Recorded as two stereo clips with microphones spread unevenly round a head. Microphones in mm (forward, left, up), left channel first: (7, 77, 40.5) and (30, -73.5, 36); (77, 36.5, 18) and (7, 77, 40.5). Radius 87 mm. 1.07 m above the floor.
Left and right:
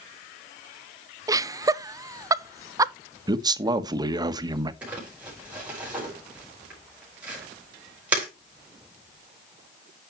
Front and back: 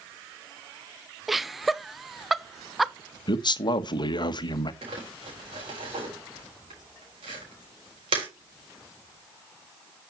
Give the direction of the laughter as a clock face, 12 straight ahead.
3 o'clock.